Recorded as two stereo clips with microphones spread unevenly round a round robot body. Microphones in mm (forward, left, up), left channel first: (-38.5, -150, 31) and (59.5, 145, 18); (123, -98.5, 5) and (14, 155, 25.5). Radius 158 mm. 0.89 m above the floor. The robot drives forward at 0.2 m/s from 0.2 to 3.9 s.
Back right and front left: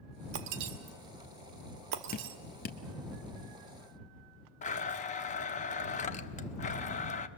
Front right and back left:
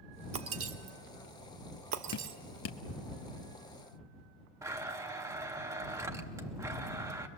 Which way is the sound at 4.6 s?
165° right.